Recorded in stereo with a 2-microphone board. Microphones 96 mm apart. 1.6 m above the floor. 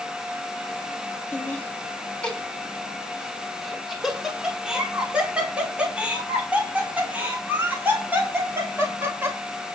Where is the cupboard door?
No cupboard door in this recording.